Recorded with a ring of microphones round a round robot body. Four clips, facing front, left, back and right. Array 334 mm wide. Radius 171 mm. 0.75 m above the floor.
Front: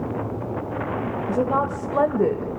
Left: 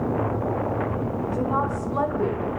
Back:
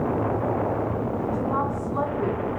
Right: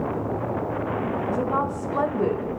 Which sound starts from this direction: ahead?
A woman speaking, at 1.3 s.